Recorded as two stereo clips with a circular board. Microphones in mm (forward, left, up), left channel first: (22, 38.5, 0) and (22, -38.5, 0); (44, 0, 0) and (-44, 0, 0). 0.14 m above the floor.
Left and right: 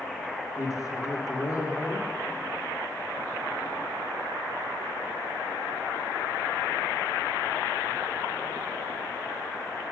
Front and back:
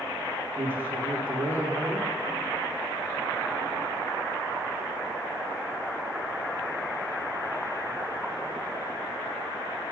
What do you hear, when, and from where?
0.6 s a man speaking: 120° left, 2 m